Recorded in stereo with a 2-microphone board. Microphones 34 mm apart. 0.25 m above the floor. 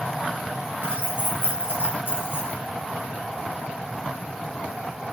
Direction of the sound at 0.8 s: 80° left.